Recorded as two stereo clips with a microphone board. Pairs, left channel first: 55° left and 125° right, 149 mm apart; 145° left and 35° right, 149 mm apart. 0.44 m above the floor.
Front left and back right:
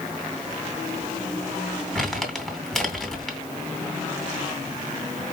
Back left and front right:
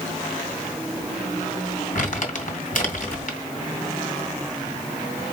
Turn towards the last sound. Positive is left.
turn(degrees=140)